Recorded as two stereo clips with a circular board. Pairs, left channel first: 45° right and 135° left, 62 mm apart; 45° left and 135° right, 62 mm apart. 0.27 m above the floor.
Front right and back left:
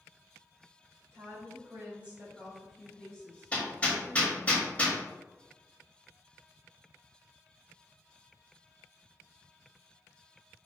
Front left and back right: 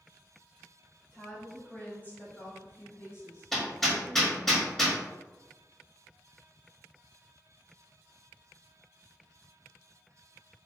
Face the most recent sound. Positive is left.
turn(degrees=-35)